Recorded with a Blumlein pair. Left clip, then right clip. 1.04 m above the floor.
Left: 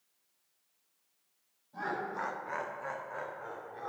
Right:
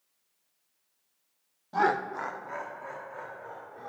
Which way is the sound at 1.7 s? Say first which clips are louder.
Right 10 dB; 50° right.